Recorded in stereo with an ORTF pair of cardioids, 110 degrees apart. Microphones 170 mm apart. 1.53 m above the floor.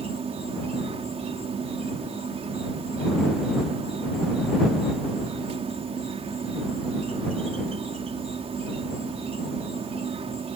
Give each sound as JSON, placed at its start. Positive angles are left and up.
{"t": 0.0, "sound": "an insect", "azimuth_deg": -35}